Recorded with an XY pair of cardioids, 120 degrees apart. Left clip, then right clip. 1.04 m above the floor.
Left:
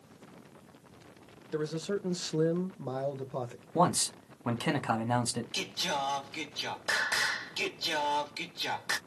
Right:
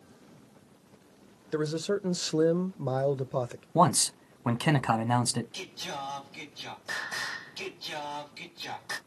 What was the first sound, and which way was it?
A man speaking, 35° right.